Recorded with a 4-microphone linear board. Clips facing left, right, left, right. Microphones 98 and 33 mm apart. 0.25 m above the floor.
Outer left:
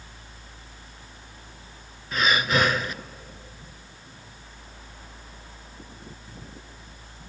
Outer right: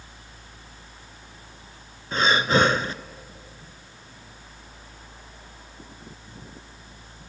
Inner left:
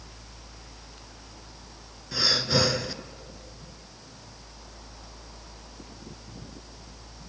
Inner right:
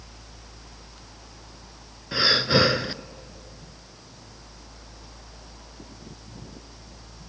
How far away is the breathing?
About 0.6 m.